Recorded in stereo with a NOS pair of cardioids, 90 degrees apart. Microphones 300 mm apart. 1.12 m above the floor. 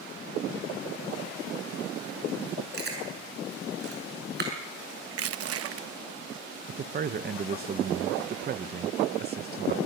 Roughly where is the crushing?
Ahead right.